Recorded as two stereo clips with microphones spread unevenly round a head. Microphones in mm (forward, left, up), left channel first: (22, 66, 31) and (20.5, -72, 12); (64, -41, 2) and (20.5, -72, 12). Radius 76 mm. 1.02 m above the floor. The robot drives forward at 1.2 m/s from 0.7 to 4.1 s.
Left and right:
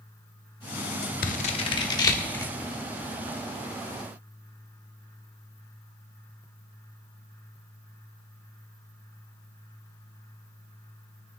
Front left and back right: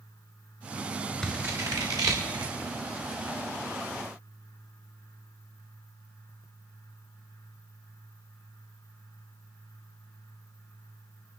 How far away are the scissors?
About 0.8 m.